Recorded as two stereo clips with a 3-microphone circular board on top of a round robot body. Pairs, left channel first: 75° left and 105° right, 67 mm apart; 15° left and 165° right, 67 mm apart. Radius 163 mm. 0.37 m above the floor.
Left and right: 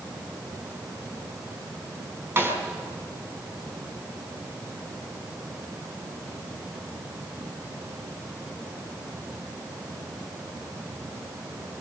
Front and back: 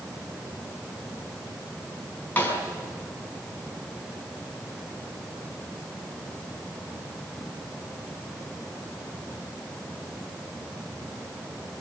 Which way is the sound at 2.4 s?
50° right.